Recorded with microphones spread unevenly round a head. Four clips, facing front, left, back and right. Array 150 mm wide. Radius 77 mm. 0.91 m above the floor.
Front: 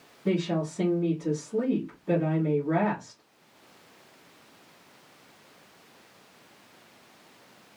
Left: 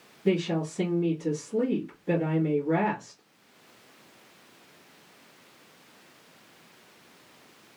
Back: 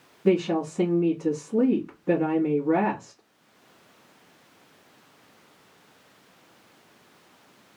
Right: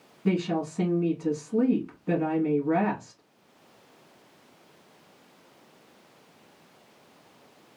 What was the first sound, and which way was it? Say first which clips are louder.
A woman speaking: left 1 dB, back 5 dB; straight behind.